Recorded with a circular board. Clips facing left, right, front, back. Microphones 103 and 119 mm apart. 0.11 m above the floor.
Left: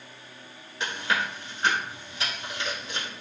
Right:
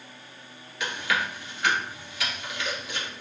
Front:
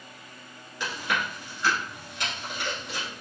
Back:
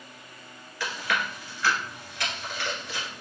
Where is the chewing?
55° left, 1.7 m.